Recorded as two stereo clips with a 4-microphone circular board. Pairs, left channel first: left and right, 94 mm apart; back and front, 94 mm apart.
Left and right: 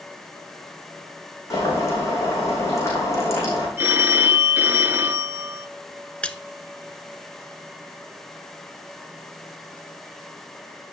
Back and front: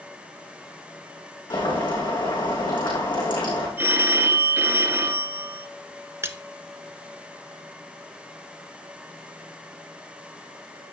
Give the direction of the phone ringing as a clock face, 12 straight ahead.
2 o'clock.